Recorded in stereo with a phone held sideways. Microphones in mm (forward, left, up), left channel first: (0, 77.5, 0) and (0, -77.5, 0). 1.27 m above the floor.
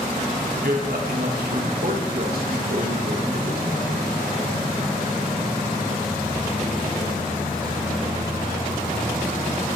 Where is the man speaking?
75° right (ahead or behind), 1.8 m.